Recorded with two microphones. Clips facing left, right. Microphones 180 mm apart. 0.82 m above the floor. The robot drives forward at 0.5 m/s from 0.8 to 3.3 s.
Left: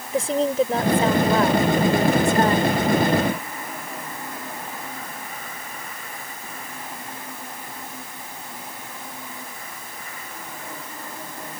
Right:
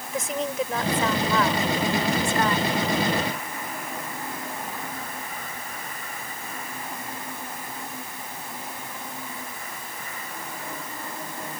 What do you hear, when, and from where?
0.1 s a woman speaking: 35° left (ahead or behind); by 2.7 s 40° left (ahead or behind)